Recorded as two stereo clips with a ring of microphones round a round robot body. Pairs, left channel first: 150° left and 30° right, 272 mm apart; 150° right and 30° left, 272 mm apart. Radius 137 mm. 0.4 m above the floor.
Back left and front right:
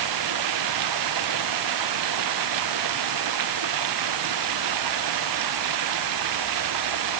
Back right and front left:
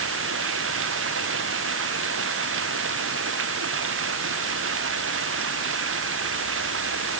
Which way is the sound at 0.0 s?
15° right.